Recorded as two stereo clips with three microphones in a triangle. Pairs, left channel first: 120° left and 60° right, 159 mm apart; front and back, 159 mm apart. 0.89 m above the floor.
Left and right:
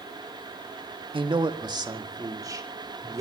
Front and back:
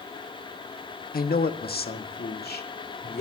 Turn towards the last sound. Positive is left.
turn(degrees=10)